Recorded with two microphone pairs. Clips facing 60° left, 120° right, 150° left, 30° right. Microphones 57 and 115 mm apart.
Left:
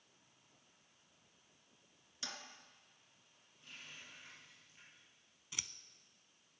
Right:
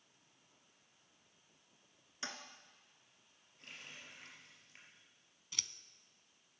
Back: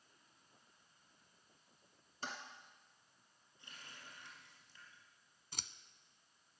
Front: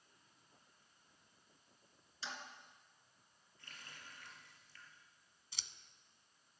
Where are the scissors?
135° left, 0.6 m.